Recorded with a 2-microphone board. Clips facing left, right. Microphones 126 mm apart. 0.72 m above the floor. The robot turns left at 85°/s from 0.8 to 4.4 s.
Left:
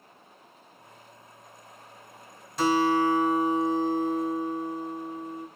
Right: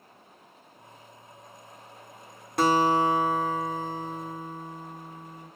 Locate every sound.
2.6 s a guitar: 115° right, 1.0 m; by 5.5 s 90° left, 1.0 m